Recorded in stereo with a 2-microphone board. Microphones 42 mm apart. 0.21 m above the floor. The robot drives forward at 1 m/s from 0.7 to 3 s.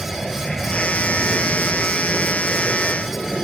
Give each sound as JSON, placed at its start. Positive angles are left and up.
{"t": 0.0, "sound": "an aircraft", "side_deg": 10}